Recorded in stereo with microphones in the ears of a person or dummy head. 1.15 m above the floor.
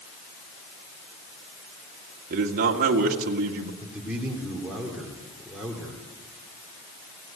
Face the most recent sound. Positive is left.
turn(degrees=-5)  # may be behind; listen again after turning